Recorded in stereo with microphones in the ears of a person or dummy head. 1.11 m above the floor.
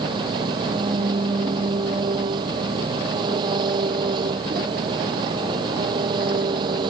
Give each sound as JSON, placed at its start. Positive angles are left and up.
{"t": 0.0, "sound": "an engine running", "side_deg": -35}